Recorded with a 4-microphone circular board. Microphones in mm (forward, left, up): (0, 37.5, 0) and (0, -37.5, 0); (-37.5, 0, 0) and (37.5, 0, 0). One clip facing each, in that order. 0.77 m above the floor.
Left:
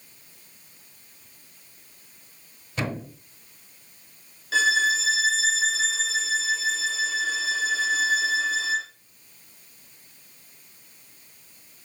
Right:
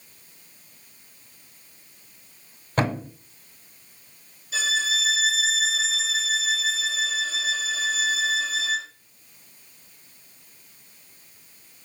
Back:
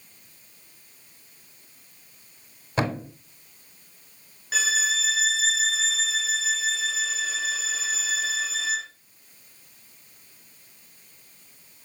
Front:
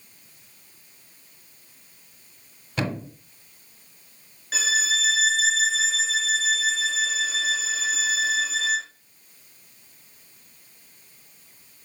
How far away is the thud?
About 1.4 m.